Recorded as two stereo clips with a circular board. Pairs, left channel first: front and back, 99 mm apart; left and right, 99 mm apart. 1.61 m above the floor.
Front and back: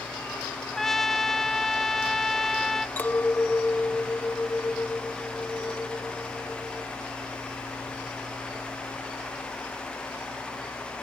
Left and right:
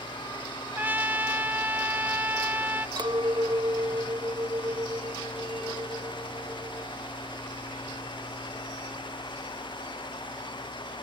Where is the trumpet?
80° right.